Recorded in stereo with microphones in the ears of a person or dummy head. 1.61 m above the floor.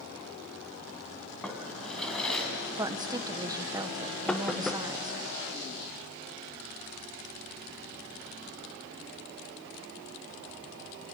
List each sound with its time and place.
1.4 s a drawer: 5° left (ahead or behind), 3.5 m
2.8 s a woman speaking: 20° right (ahead or behind), 1.1 m
4.3 s knocking: 5° left (ahead or behind), 1.0 m